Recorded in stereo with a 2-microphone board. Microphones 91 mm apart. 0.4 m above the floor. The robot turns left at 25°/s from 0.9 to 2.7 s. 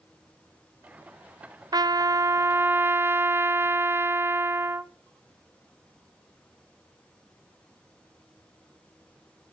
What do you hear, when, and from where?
1.7 s a trumpet: 45° right (ahead or behind), 0.6 m; by 4.9 s 25° right (ahead or behind), 0.6 m